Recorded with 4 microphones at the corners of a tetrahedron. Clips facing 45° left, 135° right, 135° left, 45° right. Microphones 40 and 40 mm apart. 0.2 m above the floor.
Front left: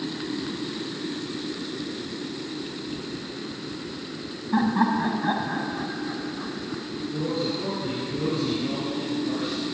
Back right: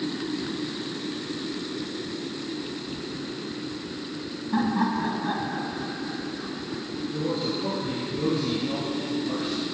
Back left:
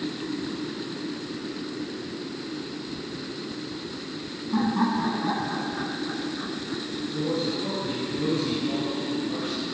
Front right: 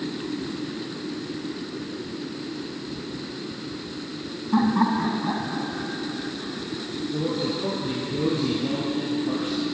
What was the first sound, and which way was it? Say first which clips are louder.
Laughter: front left 3 dB, front right 3 dB; 25° right.